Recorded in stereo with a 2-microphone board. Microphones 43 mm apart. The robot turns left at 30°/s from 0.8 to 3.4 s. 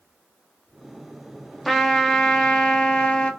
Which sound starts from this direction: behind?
A trumpet, at 1.6 s.